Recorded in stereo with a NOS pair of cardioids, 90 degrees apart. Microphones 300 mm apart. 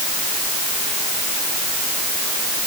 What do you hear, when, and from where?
Only background noise.